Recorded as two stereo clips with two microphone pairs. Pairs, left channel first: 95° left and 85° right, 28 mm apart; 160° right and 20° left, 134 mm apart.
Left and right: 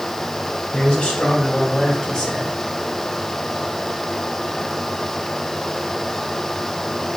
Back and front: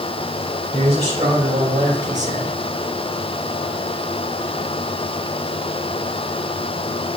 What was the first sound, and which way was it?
A man speaking, 55° left.